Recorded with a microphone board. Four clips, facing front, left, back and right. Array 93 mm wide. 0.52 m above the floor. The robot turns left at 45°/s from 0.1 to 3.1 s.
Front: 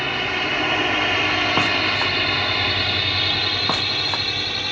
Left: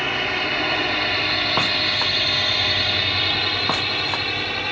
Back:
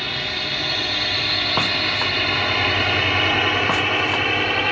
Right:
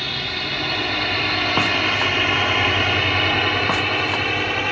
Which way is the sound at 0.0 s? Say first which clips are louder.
Left 4 dB, front 4 dB; 55° left.